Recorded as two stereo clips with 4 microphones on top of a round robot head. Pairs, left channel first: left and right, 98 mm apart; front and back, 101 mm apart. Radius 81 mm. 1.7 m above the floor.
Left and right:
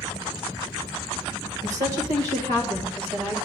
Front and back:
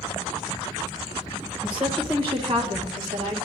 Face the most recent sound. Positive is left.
turn(degrees=-150)